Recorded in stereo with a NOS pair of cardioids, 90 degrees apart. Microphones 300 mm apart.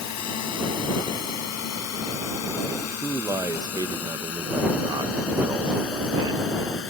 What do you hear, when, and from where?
0.0 s a drone: 65° left; by 6.9 s 45° left
2.8 s a man speaking: 15° right